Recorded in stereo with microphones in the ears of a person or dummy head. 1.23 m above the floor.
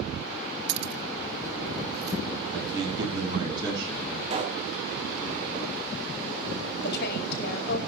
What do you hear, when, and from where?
0.7 s keys jangling: 60° right (ahead or behind), 0.6 m; by 2.2 s 35° right (ahead or behind), 2.5 m
2.5 s a man speaking: 20° right (ahead or behind), 8 m
4.3 s a pop: 40° right (ahead or behind), 1.8 m
6.8 s a woman speaking: 65° left (ahead or behind), 4.5 m